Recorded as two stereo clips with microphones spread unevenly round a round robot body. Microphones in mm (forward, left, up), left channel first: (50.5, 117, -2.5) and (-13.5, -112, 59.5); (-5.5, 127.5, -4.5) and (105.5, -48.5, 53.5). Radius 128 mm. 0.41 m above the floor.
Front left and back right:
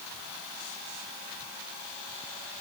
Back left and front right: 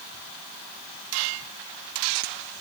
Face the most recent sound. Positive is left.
No sound to turn to.